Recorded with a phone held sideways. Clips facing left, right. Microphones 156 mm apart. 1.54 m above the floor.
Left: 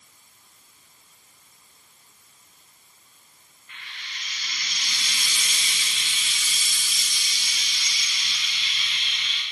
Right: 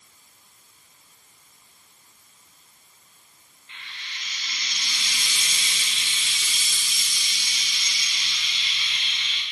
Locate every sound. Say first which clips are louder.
3.7 s frying: even; 25° right (ahead or behind), 0.7 m